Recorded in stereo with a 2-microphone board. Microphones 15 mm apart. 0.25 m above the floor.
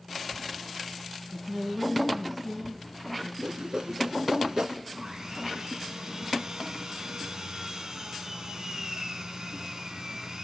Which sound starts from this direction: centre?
A man speaking, at 1.3 s.